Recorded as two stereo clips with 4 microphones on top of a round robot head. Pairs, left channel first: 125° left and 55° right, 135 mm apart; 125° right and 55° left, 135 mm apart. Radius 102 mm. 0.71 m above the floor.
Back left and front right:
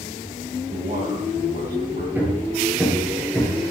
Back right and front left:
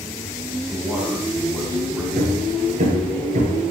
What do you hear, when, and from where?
0.7 s a man speaking: 30° right, 7.5 m
2.1 s hammering: 20° left, 9.5 m